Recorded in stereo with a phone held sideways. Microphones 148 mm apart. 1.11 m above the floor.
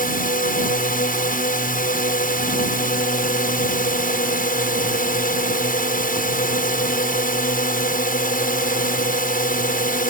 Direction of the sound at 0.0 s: 70° left (ahead or behind).